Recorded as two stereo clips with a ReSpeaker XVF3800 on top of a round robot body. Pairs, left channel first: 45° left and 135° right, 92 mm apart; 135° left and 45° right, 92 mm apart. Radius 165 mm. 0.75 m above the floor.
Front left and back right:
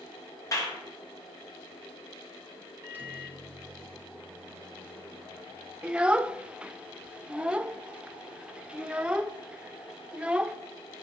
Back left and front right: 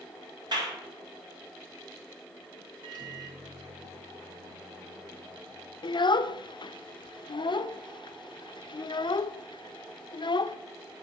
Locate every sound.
0.5 s a clap: 10° right, 2 m
2.8 s a microwave: 70° right, 1.2 m
5.8 s a child speaking: 150° left, 0.5 m